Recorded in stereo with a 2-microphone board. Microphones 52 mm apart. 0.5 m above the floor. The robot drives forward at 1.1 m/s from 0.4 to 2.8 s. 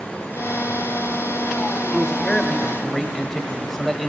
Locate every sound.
1.9 s a man speaking: 15° left (ahead or behind), 1.4 m; by 4.1 s 10° left (ahead or behind), 2 m